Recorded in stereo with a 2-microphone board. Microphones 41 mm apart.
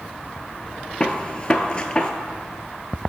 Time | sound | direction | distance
1.0 | a gunshot | 25° left (ahead or behind) | 0.5 m